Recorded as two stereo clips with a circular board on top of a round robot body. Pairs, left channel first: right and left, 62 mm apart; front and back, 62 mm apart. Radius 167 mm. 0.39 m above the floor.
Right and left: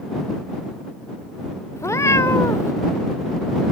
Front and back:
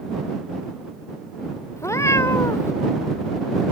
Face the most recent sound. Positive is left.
turn(degrees=-45)